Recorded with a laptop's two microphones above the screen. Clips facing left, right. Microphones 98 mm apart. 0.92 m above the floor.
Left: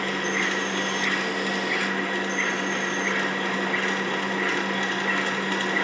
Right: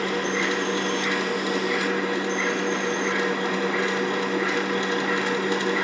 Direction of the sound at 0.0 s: 20° right (ahead or behind).